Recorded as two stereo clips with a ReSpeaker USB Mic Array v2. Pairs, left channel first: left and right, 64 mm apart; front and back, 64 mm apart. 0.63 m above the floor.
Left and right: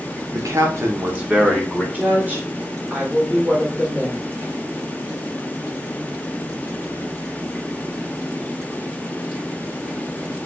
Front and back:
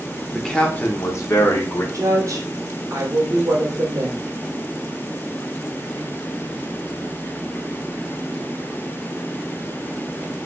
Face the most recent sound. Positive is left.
turn(degrees=-150)